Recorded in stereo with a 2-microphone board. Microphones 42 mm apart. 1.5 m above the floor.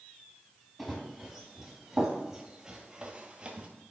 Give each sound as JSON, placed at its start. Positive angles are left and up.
{"t": 0.8, "sound": "running footsteps", "side_deg": 5, "distance_m": 2.5}